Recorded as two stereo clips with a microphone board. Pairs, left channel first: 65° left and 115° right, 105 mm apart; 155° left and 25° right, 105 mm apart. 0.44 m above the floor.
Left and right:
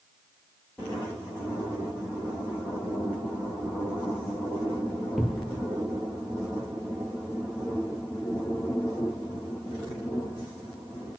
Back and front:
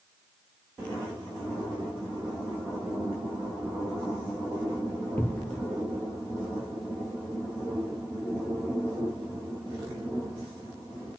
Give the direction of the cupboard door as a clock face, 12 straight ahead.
7 o'clock.